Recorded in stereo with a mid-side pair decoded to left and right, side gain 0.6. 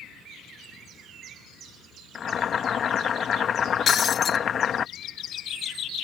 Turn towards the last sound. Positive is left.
turn(degrees=35)